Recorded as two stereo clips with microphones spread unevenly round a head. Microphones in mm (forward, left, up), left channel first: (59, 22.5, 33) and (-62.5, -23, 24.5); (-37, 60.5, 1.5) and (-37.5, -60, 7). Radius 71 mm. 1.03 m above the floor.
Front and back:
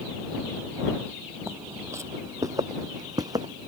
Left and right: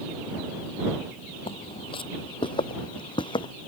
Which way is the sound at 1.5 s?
125° left.